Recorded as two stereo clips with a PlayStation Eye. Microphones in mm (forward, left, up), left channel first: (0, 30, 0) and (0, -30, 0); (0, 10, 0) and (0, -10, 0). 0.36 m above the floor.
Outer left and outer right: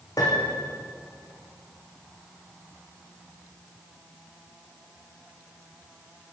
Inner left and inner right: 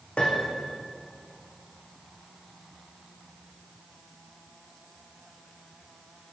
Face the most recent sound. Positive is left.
turn(degrees=85)